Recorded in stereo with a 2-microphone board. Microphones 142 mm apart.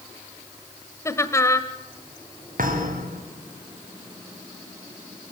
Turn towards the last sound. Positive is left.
turn(degrees=-75)  # may be behind; listen again after turning